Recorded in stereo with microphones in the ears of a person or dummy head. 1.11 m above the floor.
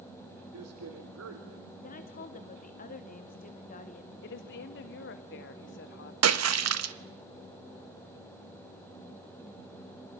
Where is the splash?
80° right, 1.1 m.